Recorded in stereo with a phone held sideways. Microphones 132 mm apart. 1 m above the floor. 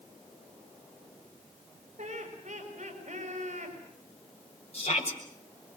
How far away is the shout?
About 7 m.